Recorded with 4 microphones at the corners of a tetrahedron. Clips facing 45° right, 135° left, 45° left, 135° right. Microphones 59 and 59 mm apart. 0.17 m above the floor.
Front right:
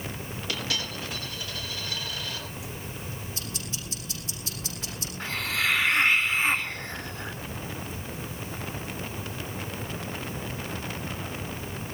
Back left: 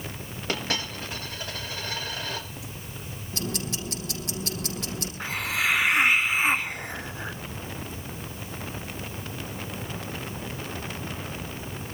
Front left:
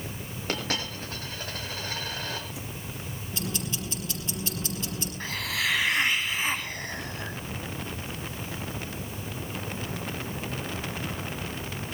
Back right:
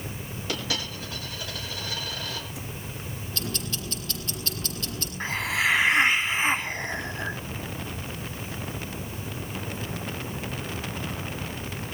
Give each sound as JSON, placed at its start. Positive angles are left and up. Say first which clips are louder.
{"t": 0.5, "sound": "a dropped coin", "louder": "back left 3 dB, front left 1 dB", "azimuth_deg": 85, "distance_m": 9.5}
{"t": 3.3, "sound": "ticking", "louder": "back left 6 dB, front left 1 dB", "azimuth_deg": 115, "distance_m": 7.5}
{"t": 5.2, "sound": "a hiss", "louder": "back left 1 dB, back right 5 dB", "azimuth_deg": -160, "distance_m": 0.7}